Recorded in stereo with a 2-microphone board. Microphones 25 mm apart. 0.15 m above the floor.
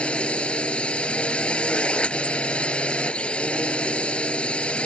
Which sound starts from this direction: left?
A drone, at 0.0 s.